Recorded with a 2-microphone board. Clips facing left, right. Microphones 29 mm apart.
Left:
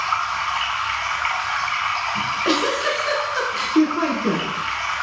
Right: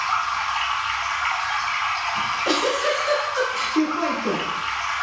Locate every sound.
0.0 s running water: 25° left (ahead or behind), 1.2 m
2.1 s a giggle: 30° left (ahead or behind), 0.9 m